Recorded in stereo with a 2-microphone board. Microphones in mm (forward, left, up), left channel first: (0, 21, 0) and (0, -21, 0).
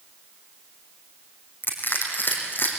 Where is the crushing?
50° left (ahead or behind), 4 m.